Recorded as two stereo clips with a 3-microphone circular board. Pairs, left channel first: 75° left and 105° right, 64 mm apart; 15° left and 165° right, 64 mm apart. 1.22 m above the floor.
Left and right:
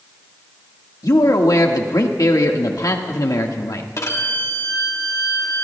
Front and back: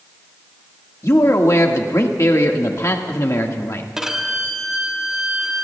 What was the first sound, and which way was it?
A man speaking, 55° left.